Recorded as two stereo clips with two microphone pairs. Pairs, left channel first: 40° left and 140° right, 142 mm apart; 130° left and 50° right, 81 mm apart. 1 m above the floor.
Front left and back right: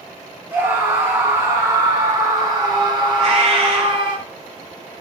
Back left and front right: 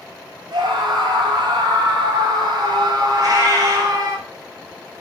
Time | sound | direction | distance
0.5 | a scream | 65° right | 5.5 m
3.2 | a cat meowing | 90° right | 5 m